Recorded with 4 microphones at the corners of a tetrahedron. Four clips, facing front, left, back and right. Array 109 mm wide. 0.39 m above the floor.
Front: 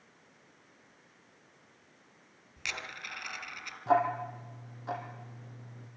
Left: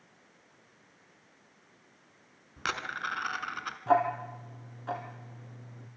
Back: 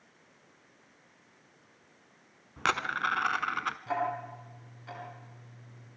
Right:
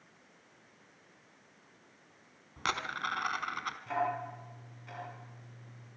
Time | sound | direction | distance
2.6 | a dropped coin | straight behind | 1.1 m
3.9 | ticking | 60° left | 4 m